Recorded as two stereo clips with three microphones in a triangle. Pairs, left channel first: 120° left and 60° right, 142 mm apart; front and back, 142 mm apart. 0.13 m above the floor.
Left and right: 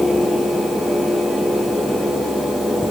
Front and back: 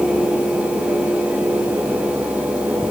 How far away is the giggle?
No giggle in this recording.